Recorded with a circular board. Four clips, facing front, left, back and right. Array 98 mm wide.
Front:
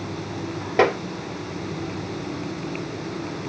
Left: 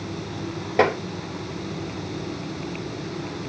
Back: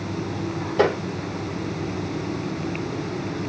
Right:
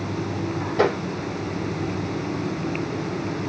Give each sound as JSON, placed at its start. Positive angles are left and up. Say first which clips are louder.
{"t": 0.8, "sound": "tapping", "louder": "left 1 dB, front 1 dB", "azimuth_deg": 35, "distance_m": 2.5}